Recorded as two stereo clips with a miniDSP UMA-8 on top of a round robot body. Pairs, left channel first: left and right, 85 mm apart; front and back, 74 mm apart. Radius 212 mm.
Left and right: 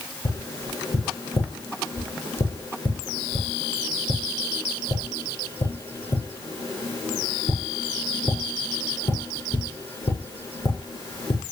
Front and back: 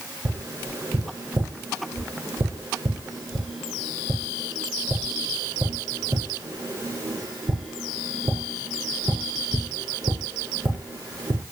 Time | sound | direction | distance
0.2 | tapping | 135° left | 7.5 m